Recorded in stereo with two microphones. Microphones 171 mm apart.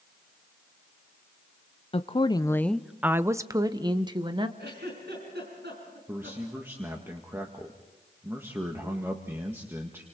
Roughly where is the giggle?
Right.